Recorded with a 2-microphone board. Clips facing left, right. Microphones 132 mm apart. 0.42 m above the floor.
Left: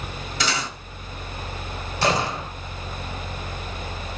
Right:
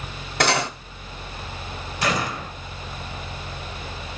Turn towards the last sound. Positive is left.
turn(degrees=30)  # may be behind; listen again after turning